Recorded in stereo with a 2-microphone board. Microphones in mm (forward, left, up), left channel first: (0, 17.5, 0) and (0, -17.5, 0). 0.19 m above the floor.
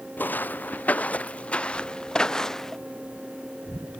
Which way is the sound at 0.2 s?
60° left (ahead or behind).